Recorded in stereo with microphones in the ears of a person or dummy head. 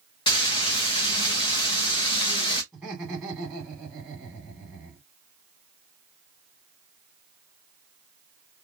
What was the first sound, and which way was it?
Frying, 20° left (ahead or behind).